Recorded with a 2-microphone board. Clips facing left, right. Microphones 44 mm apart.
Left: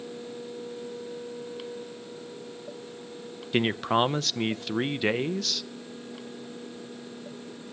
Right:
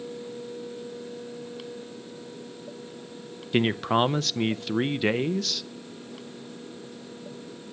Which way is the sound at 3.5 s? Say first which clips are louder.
Right 1 dB; centre (ahead or behind).